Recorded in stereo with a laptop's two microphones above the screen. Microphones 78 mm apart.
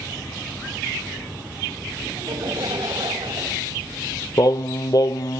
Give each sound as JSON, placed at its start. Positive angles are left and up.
{"t": 2.1, "sound": "laughter", "side_deg": -70, "distance_m": 5.5}
{"t": 4.4, "sound": "singing", "side_deg": 55, "distance_m": 0.9}